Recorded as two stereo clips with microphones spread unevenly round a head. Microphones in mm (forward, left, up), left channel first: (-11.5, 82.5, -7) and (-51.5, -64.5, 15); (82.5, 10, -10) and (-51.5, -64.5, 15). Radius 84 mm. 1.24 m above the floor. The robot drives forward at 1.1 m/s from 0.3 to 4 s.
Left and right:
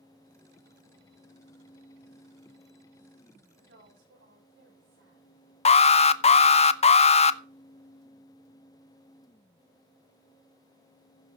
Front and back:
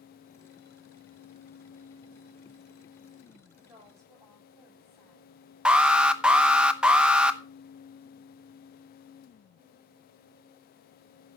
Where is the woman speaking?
80° right, 9 m; by 5.2 s 85° right, 9 m.